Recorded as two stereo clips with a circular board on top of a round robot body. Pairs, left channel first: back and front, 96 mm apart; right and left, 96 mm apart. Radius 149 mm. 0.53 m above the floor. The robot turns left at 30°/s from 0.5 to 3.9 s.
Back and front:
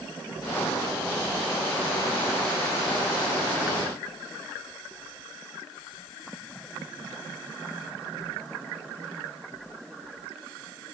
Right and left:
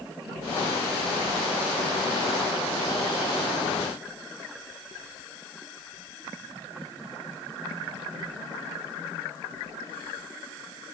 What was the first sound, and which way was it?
Only background noise.